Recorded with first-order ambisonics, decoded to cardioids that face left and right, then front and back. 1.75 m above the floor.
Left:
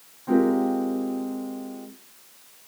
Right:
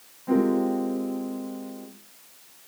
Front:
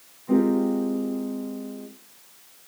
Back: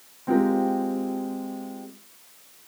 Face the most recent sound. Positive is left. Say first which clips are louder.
# left 2 dB, even
turn(degrees=175)